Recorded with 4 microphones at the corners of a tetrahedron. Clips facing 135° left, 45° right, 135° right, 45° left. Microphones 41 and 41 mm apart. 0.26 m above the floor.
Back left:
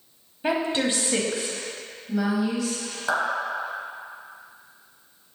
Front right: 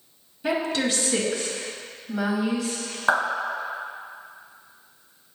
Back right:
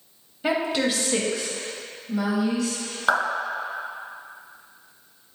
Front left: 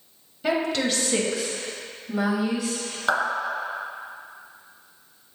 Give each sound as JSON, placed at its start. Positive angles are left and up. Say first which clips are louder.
{"t": 0.4, "sound": "a woman speaking", "louder": "back left 1 dB, even", "azimuth_deg": 150, "distance_m": 1.1}
{"t": 3.1, "sound": "a clap", "louder": "front right 3 dB, back right 2 dB", "azimuth_deg": -65, "distance_m": 1.2}